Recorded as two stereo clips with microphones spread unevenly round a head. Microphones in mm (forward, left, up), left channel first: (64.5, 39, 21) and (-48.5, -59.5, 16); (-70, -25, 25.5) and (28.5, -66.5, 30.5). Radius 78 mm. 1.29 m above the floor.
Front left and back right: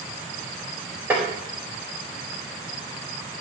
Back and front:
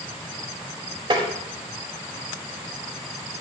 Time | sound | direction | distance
1.1 | tapping | 60° right | 4 m